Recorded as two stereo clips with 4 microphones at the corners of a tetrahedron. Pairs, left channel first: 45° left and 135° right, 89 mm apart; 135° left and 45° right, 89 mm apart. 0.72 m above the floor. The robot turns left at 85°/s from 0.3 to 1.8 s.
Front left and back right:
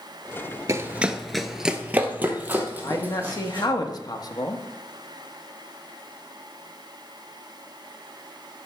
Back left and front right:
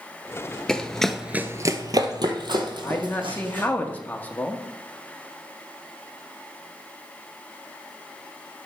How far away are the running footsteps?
About 0.8 m.